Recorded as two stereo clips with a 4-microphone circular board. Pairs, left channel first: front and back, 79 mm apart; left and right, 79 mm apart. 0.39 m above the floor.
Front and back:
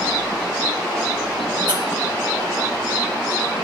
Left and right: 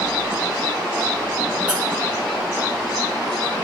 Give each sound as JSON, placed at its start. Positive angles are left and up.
{"t": 1.7, "sound": "a squeak", "azimuth_deg": -165, "distance_m": 2.0}